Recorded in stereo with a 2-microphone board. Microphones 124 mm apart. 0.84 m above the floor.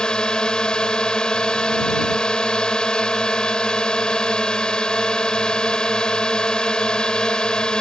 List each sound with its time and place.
0.0 s a drone: 5° left (ahead or behind)